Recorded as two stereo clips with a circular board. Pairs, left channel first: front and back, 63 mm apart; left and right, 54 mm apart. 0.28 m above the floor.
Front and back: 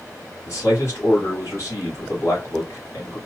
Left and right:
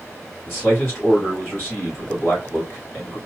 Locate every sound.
0.5 s a man speaking: 40° left, 3.5 m